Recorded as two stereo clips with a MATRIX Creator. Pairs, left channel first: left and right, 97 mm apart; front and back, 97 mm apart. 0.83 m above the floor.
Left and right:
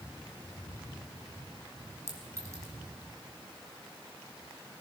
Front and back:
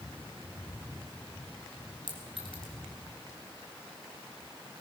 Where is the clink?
30° right, 4 m.